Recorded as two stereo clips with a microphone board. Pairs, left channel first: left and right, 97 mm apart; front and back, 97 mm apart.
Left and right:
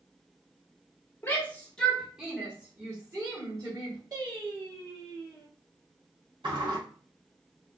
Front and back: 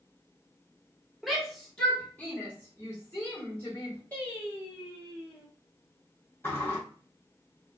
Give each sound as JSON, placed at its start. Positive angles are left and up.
{"t": 1.2, "sound": "a shout", "azimuth_deg": 95, "distance_m": 1.0}
{"t": 4.1, "sound": "singing", "azimuth_deg": -65, "distance_m": 1.6}
{"t": 6.4, "sound": "a sliding door", "azimuth_deg": -65, "distance_m": 1.8}